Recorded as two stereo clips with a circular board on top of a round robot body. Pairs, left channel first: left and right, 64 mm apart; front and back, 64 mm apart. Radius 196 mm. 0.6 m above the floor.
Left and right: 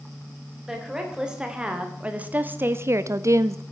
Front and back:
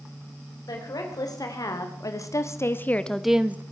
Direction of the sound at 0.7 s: 10° right.